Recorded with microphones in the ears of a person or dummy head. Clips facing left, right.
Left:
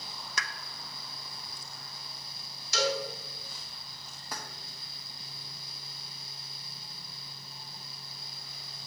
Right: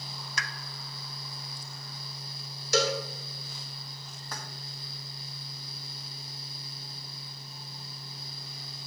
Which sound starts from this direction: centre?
Keys jangling, at 4.3 s.